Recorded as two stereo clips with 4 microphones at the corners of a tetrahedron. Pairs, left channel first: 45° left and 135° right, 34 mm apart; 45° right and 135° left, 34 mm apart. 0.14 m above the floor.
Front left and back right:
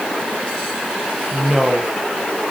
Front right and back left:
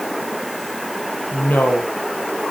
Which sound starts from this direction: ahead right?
A woman speaking, at 1.3 s.